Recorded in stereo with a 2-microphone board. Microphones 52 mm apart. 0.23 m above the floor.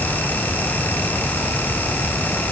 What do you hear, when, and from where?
Only background noise.